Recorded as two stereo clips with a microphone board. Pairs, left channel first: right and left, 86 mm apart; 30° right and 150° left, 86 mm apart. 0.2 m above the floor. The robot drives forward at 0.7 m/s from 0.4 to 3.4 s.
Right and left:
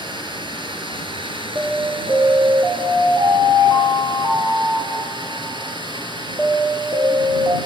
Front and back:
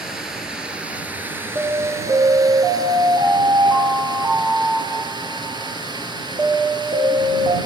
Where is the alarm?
120° left, 1.4 m; by 7.6 s 150° left, 2.5 m.